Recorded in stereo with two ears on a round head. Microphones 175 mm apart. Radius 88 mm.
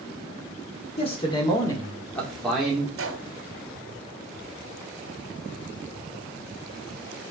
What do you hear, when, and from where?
1.0 s a man speaking: 30° left (ahead or behind), 2 m; by 2.9 s 5° right (ahead or behind), 2 m
3.0 s a gunshot: 75° right (ahead or behind), 2 m